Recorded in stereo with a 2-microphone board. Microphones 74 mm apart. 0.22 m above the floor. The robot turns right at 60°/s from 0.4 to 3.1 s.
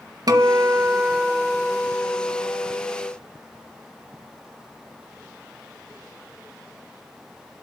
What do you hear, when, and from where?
0.3 s a guitar: 65° right, 1.2 m; by 3.1 s 95° left, 1.2 m